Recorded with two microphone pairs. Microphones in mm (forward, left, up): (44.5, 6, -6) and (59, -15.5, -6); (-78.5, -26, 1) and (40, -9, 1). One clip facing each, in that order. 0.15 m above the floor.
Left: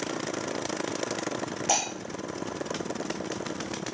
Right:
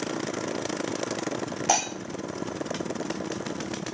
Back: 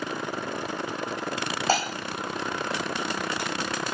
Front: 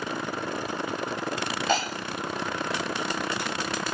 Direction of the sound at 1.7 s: 115° right.